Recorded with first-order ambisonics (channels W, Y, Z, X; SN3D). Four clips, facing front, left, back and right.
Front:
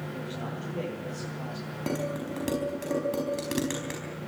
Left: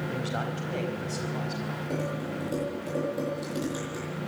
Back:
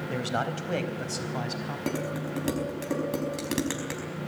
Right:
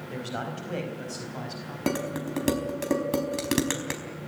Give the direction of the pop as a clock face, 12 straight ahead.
No pop in this recording.